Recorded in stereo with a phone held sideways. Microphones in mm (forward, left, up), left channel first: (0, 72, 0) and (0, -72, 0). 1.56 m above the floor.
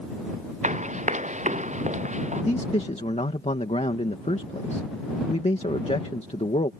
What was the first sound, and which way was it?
Running footsteps, 55° right (ahead or behind).